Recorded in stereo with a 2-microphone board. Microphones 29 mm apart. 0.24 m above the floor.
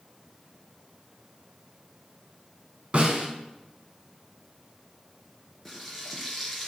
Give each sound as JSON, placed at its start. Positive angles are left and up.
{"t": 2.9, "sound": "a snare drum", "side_deg": -40, "distance_m": 2.0}
{"t": 5.7, "sound": "frying", "side_deg": 5, "distance_m": 2.0}